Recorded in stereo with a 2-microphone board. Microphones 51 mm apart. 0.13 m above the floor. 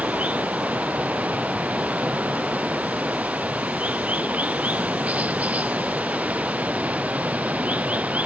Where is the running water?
30° right (ahead or behind).